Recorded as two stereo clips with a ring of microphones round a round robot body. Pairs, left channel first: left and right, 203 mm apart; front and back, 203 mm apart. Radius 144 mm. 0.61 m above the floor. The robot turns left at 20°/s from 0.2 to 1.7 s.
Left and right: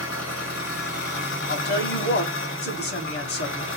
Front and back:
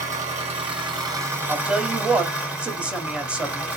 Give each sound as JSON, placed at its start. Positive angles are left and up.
{"t": 0.0, "sound": "an engine running", "azimuth_deg": 125, "distance_m": 1.4}
{"t": 1.5, "sound": "a woman speaking", "azimuth_deg": 100, "distance_m": 1.2}